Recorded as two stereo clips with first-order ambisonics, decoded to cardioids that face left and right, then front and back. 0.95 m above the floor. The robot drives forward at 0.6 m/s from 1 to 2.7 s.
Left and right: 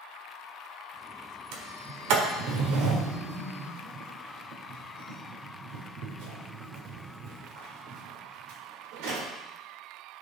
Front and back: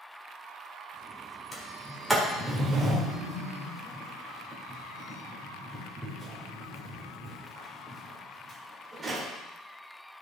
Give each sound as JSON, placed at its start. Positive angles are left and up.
{"t": 1.5, "sound": "a sliding door", "azimuth_deg": -80, "distance_m": 1.4}